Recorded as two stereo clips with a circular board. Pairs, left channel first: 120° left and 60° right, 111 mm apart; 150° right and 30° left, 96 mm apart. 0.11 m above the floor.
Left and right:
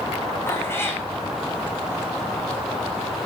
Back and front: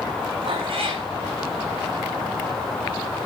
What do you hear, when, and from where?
0.5 s a cat meowing: 50° left, 2.5 m